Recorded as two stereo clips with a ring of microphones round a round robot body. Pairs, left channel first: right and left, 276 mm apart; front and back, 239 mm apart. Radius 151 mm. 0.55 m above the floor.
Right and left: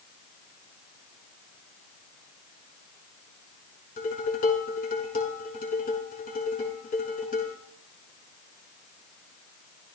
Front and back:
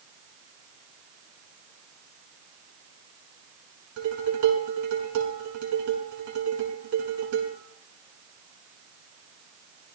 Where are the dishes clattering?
155° right, 5 m.